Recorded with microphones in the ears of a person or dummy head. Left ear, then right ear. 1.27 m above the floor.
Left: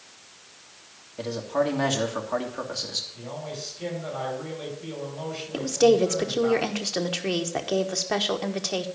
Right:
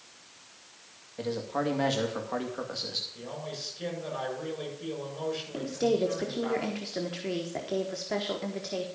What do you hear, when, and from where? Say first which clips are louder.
1.2 s a man speaking: left 5 dB; 5° left (ahead or behind), 1.9 m
3.1 s a man speaking: left 3 dB; 40° right (ahead or behind), 7.5 m
5.5 s a woman speaking: left 10 dB; 35° left (ahead or behind), 1.2 m